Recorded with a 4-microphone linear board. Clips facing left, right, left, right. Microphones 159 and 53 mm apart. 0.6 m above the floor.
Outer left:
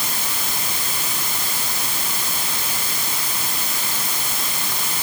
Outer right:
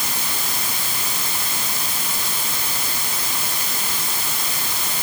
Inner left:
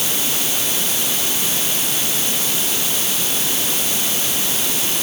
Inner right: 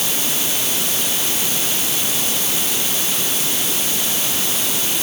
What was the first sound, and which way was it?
Only background noise.